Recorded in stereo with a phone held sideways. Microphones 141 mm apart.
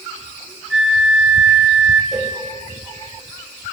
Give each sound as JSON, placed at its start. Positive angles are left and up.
{"t": 0.7, "sound": "a flute", "side_deg": -5, "distance_m": 0.7}
{"t": 2.1, "sound": "a cowbell", "side_deg": -5, "distance_m": 1.2}